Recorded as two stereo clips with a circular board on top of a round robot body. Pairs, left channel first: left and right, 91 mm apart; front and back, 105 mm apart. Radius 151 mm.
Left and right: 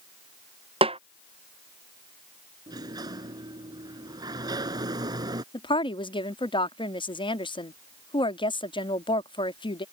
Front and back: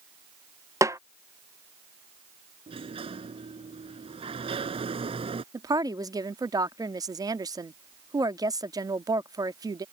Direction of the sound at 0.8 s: 115° right.